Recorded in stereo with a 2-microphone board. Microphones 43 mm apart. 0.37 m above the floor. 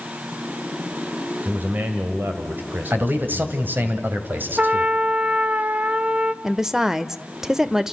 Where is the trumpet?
35° right (ahead or behind), 0.8 m.